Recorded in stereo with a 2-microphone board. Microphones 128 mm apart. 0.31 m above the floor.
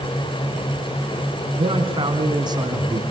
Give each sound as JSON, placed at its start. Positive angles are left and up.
{"t": 1.6, "sound": "a man speaking", "side_deg": -45, "distance_m": 3.5}